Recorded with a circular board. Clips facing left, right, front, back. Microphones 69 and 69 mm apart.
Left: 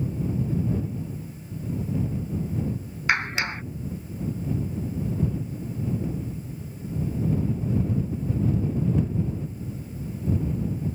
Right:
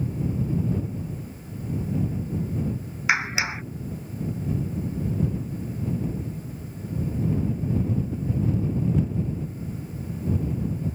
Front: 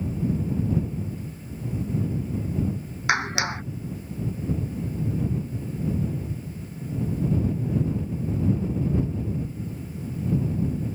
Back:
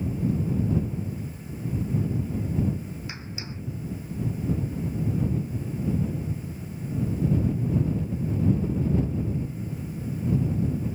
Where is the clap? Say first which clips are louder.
Right 1 dB, front 14 dB; 5° right.